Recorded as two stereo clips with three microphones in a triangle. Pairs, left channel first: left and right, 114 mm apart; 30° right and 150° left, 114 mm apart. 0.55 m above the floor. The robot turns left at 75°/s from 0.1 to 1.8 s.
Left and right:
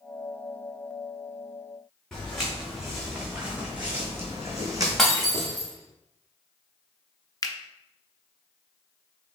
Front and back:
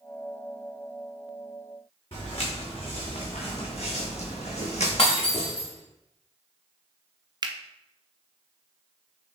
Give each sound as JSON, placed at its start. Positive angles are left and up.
{"t": 2.1, "sound": "footsteps", "azimuth_deg": 5, "distance_m": 2.5}
{"t": 5.0, "sound": "breaking glass", "azimuth_deg": 0, "distance_m": 1.9}
{"t": 7.4, "sound": "a finger snap", "azimuth_deg": 125, "distance_m": 0.5}